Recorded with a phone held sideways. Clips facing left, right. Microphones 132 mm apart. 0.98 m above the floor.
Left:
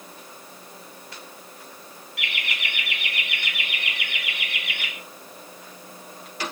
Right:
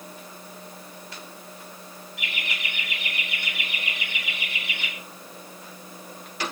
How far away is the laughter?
About 5 m.